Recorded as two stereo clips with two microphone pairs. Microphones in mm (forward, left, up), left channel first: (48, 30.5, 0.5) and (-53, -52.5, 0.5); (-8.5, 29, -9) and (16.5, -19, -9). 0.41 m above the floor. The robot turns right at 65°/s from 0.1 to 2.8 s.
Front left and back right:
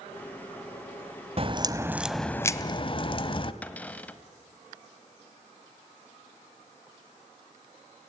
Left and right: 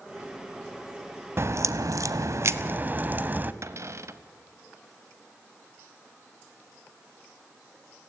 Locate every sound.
1.4 s a crack: 100° right, 1.1 m; by 3.5 s 10° right, 1.1 m
3.6 s a cupboard door: 40° right, 1.2 m